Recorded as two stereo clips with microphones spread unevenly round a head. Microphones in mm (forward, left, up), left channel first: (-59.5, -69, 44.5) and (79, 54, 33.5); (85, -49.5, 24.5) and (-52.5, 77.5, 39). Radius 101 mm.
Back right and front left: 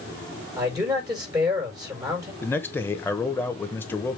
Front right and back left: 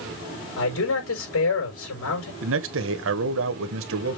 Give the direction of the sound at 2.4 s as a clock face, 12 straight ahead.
7 o'clock.